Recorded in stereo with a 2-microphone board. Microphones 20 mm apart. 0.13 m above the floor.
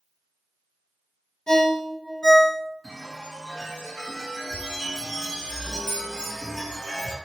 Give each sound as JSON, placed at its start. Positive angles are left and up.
{"t": 1.5, "sound": "a ringtone", "side_deg": 50, "distance_m": 0.6}
{"t": 2.8, "sound": "a chime", "side_deg": 20, "distance_m": 1.8}